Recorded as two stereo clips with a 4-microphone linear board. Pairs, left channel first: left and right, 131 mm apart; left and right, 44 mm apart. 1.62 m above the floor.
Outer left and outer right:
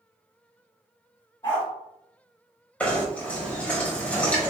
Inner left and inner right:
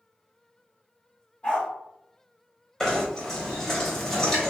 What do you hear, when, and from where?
1.4 s a dog barking: 25° left (ahead or behind), 1.6 m
2.8 s knocking: 10° left (ahead or behind), 1.0 m